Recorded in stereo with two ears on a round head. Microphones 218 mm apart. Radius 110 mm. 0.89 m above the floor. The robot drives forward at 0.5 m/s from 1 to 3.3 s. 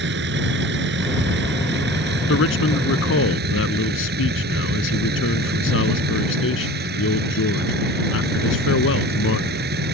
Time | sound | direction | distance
0.0 | a vehicle | 50° right (ahead or behind) | ?
2.3 | a man speaking | 60° left (ahead or behind) | ?